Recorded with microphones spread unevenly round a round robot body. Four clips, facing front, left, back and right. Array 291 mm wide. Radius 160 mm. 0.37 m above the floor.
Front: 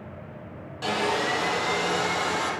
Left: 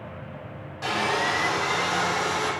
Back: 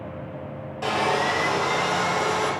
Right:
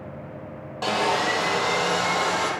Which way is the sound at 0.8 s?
130° right.